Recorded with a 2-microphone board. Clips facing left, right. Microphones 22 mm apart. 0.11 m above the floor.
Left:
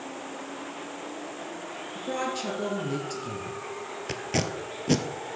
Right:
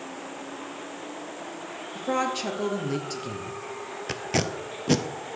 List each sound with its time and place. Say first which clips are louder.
1.9 s a woman speaking: right 4 dB; 20° right (ahead or behind), 1.6 m
4.1 s tape being pulled: right 2 dB; 5° right (ahead or behind), 0.6 m